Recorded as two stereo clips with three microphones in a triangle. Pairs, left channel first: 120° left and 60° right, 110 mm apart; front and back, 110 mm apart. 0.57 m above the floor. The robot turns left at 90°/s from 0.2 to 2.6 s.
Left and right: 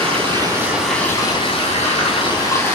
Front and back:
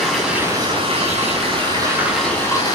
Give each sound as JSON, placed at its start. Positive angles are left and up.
{"t": 0.0, "sound": "running water", "azimuth_deg": -90, "distance_m": 2.5}